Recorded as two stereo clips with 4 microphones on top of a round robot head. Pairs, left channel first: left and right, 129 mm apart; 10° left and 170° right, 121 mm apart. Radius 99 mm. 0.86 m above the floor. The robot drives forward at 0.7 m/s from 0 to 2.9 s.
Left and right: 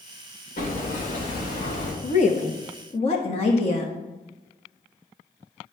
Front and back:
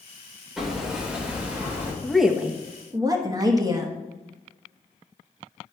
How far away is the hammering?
About 3 m.